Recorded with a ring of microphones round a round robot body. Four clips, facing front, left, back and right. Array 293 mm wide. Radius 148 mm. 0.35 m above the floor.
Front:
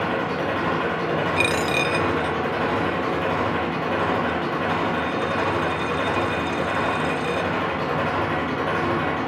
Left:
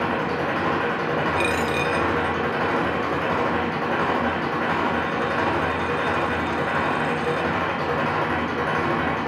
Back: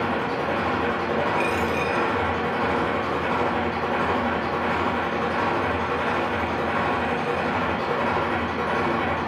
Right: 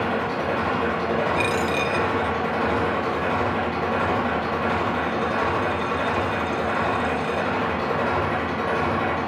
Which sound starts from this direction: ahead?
A dropped coin, at 1.4 s.